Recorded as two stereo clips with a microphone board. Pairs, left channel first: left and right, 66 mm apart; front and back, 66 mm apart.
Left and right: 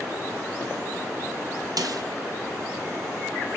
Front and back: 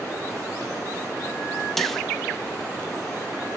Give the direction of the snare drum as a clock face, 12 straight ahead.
3 o'clock.